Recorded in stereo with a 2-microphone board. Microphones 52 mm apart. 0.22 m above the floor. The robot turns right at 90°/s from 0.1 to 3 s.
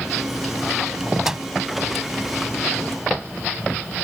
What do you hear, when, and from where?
1.2 s a microwave: 10° right (ahead or behind); by 1.5 s 20° right (ahead or behind)